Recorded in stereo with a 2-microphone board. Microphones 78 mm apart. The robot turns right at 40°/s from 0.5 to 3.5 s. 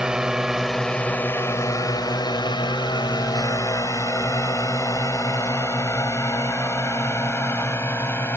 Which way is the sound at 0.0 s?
10° right (ahead or behind).